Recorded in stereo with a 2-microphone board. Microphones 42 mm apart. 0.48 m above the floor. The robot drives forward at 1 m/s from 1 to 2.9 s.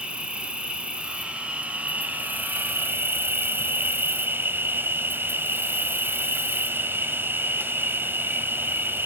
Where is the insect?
30° right (ahead or behind), 3 m; by 9.1 s 65° right (ahead or behind), 1.6 m.